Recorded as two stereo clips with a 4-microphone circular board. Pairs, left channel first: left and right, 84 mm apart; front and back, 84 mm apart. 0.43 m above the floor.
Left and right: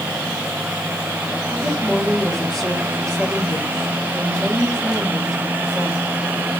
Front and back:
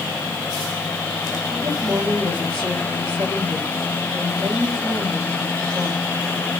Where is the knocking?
No knocking in this recording.